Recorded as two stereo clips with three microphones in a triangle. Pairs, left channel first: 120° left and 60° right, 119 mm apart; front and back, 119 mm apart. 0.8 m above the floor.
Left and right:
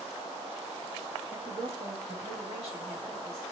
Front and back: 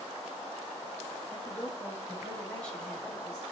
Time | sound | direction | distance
1.3 | a woman speaking | 50° right | 1.4 m